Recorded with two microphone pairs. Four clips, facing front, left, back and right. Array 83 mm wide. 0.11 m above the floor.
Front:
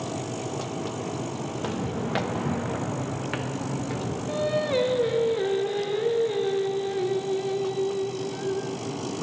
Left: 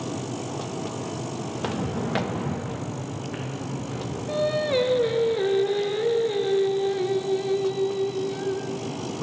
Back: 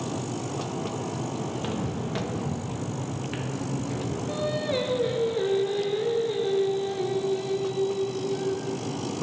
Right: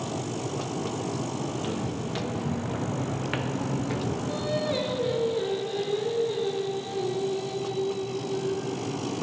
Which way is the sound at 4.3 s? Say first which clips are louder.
Left 8 dB, front 4 dB; 65° left.